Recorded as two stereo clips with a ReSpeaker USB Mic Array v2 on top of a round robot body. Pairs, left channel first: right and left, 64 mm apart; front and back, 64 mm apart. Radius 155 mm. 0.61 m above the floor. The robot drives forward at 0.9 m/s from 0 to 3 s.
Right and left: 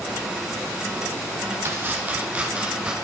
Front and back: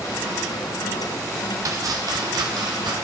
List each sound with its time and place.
1.6 s chopping: 145° left, 0.9 m; by 3.0 s 165° left, 1.9 m